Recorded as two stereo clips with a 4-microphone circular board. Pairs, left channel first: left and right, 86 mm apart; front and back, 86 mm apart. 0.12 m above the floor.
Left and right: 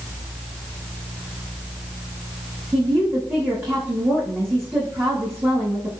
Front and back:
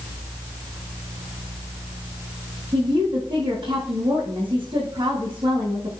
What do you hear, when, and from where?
2.7 s a woman speaking: 155° right, 7 m